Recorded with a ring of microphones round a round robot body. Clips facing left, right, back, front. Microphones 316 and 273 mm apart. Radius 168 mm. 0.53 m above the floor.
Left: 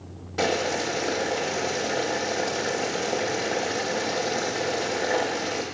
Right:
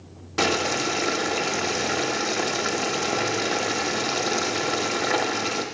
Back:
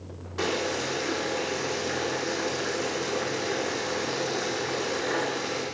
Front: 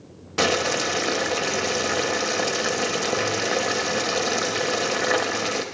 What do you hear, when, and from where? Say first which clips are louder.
0.4 s boiling: right 1 dB, front 5 dB; 20° right, 0.6 m